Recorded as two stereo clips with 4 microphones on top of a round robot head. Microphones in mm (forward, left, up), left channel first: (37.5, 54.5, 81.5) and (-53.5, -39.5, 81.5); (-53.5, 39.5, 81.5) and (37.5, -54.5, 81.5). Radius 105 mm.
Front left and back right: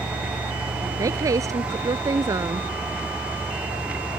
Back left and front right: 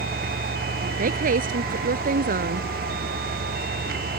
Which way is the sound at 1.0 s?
65° right.